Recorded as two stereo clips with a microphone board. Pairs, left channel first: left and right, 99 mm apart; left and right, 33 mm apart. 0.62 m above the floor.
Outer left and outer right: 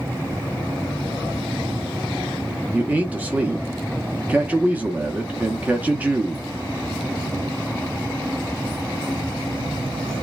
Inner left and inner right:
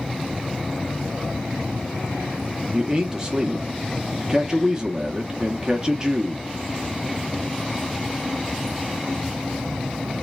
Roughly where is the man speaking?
Centre.